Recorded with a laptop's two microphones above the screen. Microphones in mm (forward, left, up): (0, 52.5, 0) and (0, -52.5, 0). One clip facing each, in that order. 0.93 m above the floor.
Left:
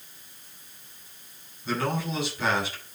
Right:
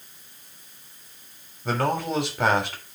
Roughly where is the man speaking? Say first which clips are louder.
Right 4 dB; right.